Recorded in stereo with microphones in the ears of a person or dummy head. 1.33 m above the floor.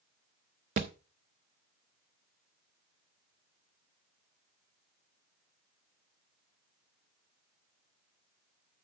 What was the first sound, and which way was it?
A thud, 35° right (ahead or behind).